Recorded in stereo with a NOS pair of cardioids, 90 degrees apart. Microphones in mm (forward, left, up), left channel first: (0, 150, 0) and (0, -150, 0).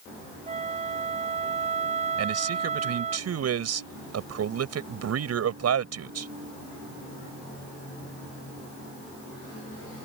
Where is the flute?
25° right.